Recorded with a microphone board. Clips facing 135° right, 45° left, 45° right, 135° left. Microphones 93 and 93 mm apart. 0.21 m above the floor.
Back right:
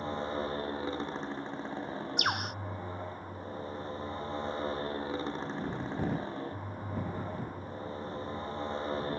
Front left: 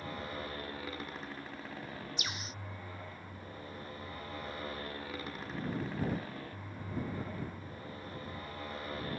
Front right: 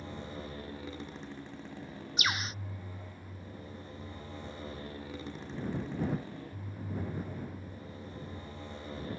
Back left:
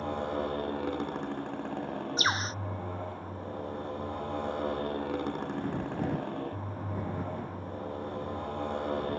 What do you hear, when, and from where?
0.0 s a motorcycle: 165° left
2.2 s a bird: 165° right